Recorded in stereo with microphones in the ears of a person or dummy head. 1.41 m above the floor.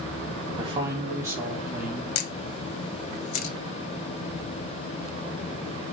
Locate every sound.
0.6 s a man speaking: 25° right (ahead or behind), 2.0 m; by 2.0 s 10° right (ahead or behind), 2.5 m
2.1 s a camera shutter: 65° left (ahead or behind), 1.1 m